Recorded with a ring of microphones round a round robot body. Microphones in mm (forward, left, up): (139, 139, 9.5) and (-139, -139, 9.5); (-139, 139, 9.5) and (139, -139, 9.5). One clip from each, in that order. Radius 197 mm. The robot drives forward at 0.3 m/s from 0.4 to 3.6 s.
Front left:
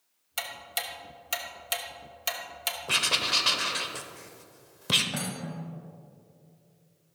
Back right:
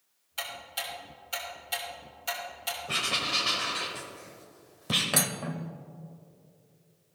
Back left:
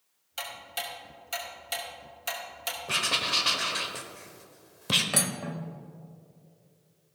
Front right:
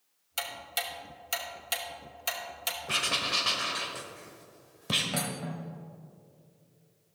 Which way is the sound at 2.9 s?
50° left.